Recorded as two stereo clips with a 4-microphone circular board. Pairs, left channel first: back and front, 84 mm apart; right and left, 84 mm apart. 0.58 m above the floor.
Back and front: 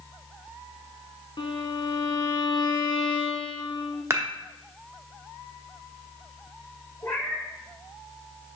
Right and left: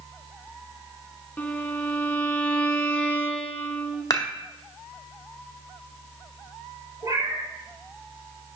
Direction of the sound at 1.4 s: 160° right.